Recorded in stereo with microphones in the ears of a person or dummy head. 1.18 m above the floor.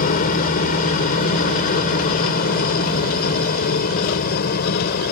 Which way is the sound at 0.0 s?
45° left (ahead or behind).